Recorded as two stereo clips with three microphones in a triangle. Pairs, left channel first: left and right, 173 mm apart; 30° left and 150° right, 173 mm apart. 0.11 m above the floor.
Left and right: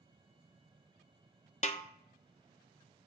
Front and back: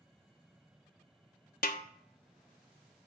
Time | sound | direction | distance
1.6 | a snare drum | 50° left | 0.7 m